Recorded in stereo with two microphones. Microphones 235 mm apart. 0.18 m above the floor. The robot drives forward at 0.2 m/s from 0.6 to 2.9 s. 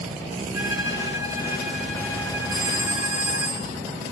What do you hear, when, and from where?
0.6 s a violin: 55° left (ahead or behind), 2.5 m; by 3.5 s 60° left (ahead or behind), 2.5 m
2.5 s a phone ringing: 65° left (ahead or behind), 5.5 m